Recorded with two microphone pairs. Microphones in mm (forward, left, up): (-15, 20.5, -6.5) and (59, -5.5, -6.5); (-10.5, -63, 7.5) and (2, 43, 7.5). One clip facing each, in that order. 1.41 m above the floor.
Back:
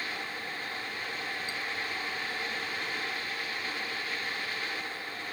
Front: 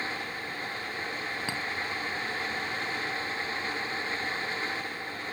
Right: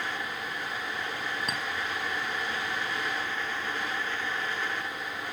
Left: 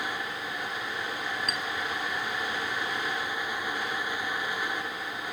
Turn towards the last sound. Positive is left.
turn(degrees=-35)